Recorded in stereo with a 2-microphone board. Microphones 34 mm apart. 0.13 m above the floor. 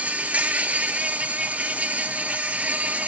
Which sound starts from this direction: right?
An insect, at 0.0 s.